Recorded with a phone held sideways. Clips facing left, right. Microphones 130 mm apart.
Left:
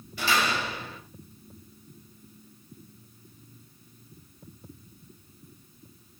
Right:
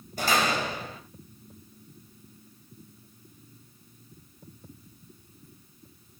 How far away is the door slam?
About 3.5 m.